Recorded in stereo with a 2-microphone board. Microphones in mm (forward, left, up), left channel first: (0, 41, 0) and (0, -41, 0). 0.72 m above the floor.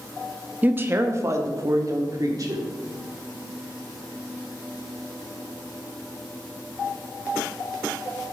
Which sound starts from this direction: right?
A woman speaking, at 0.6 s.